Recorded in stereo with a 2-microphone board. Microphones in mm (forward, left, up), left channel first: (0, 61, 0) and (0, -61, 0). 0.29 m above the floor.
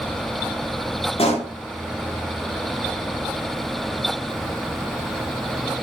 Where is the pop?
55° left (ahead or behind), 9 m.